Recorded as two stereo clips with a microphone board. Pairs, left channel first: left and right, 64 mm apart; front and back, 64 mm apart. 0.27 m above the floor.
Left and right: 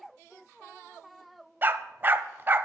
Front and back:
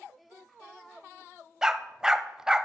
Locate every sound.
1.6 s a dog barking: 105° right, 0.5 m